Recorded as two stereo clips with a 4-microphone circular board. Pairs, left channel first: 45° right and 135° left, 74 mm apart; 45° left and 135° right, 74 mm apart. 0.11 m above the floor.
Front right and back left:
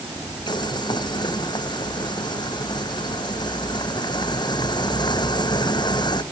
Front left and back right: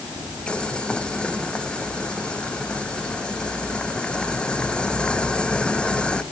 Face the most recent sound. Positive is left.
turn(degrees=-30)